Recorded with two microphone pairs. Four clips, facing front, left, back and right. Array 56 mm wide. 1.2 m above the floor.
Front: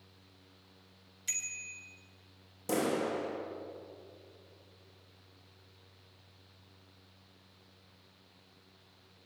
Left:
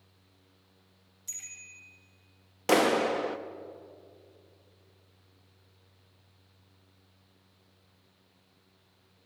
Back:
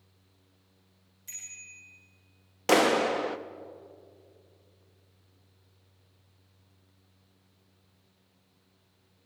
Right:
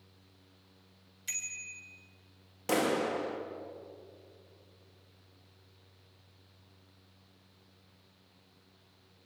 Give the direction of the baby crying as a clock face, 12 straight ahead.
No baby crying in this recording.